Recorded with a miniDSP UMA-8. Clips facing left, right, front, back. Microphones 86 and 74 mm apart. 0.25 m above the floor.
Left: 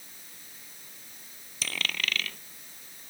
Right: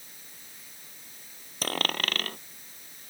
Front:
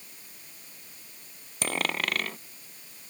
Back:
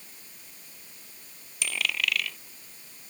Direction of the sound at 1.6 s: 45° right.